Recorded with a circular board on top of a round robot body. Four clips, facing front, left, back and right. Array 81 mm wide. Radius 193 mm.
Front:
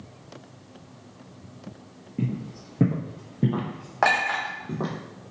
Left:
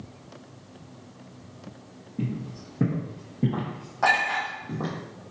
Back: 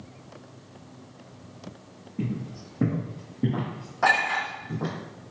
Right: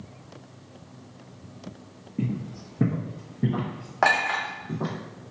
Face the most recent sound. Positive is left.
turn(degrees=-45)